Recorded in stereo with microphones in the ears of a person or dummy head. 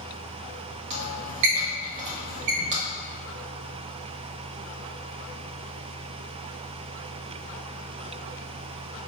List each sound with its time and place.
0.9 s a squeak: 35° right (ahead or behind), 1.0 m